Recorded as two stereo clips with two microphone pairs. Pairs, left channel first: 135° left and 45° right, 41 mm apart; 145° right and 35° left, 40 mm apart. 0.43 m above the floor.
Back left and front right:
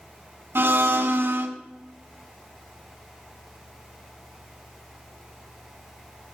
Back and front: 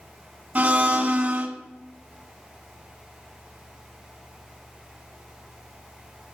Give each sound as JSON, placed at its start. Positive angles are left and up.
{"t": 0.6, "sound": "a blender", "azimuth_deg": -20, "distance_m": 0.9}